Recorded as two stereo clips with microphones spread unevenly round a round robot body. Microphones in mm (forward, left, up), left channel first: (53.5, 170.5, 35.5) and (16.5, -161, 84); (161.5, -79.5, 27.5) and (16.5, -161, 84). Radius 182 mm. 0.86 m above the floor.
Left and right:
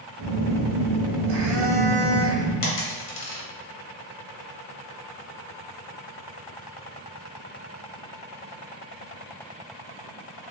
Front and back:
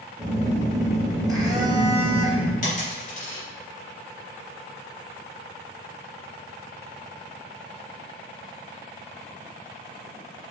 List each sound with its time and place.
0.2 s a phone buzzing: 85° right, 1.4 m
2.6 s a dropped coin: 80° left, 0.7 m